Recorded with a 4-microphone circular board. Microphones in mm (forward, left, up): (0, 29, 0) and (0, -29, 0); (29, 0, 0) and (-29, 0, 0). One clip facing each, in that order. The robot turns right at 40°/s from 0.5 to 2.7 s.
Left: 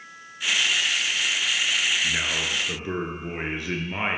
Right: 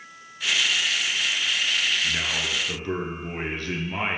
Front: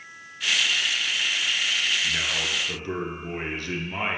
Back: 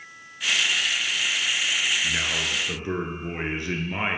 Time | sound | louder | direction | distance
2.0 | a man speaking | left 1 dB, back 1 dB | 120° left | 1.2 m